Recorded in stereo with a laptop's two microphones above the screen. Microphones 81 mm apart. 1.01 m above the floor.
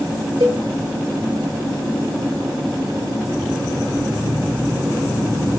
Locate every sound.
0.4 s a cowbell: 70° right (ahead or behind), 1.8 m